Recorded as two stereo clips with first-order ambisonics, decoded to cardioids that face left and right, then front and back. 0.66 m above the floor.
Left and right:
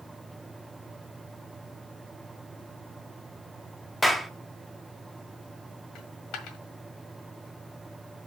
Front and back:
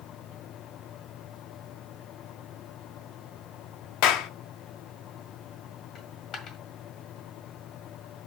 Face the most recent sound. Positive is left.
turn(degrees=55)